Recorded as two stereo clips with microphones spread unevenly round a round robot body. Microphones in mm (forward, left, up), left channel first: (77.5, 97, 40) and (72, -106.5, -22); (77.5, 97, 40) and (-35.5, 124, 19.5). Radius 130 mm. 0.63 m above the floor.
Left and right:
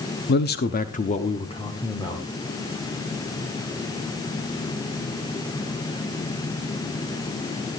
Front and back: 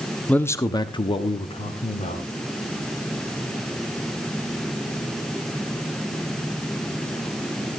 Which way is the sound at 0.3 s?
75° left.